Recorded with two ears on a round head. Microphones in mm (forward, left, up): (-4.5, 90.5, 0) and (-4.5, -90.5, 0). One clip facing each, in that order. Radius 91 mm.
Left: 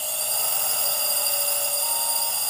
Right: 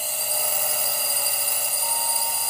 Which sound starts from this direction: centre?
A drone, at 0.0 s.